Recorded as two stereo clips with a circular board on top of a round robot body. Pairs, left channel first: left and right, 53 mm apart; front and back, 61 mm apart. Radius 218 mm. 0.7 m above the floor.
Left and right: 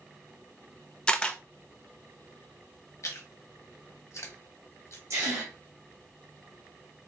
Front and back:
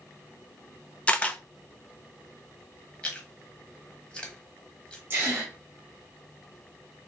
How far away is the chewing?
About 1.4 m.